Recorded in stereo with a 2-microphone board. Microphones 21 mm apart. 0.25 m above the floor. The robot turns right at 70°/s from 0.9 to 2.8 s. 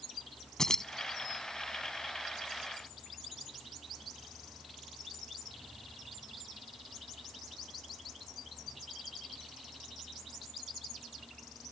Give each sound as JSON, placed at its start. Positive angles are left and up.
{"t": 0.6, "sound": "keys jangling", "side_deg": 25}